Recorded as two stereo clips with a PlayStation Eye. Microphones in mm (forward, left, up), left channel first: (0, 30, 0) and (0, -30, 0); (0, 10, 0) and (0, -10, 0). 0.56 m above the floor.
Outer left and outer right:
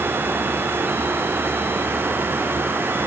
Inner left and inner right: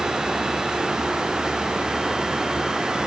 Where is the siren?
No siren in this recording.